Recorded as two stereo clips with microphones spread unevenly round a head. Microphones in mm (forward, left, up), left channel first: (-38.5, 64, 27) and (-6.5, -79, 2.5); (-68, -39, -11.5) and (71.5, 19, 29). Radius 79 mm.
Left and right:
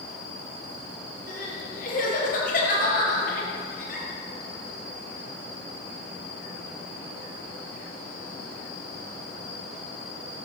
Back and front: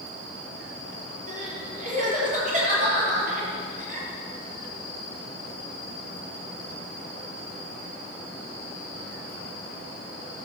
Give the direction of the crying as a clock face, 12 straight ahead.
10 o'clock.